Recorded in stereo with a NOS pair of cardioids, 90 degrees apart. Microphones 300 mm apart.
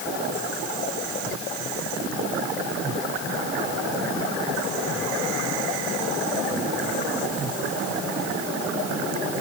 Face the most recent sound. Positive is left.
No sound to turn to.